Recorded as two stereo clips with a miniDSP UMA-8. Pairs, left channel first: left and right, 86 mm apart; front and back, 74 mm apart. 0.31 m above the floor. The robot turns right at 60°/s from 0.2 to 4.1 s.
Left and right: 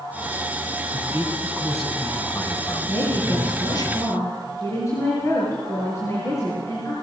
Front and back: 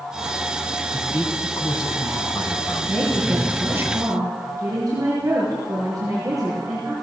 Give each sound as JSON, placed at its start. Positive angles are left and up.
{"t": 0.9, "sound": "a man speaking", "azimuth_deg": -45, "distance_m": 3.5}
{"t": 2.9, "sound": "a woman speaking", "azimuth_deg": 70, "distance_m": 6.0}